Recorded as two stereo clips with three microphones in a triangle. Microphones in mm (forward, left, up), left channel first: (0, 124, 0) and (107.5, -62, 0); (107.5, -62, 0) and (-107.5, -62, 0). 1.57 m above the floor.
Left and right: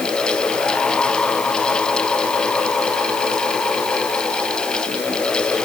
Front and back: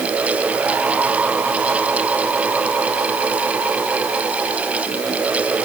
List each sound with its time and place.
Only background noise.